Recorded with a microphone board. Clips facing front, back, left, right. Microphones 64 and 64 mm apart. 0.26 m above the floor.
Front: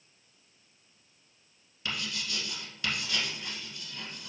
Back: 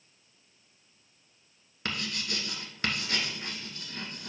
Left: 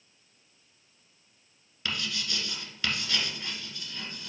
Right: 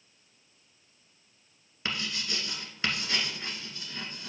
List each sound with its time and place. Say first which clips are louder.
1.9 s writing: back 2 dB, even; 150° right, 1.3 m